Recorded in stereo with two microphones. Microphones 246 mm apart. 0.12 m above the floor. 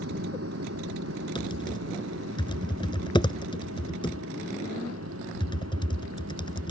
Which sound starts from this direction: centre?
Typing on a keyboard, at 1.4 s.